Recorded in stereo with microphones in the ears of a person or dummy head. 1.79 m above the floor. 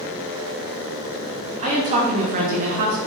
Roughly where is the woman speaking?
Right.